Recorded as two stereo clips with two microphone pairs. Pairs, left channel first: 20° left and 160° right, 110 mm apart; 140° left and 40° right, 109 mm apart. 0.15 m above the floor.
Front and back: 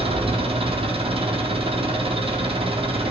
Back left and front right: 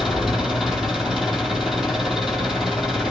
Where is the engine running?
125° right, 1.9 m.